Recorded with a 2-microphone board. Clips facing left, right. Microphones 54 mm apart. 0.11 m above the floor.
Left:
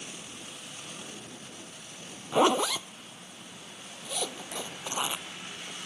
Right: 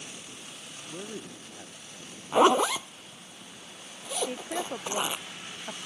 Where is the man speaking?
70° right (ahead or behind).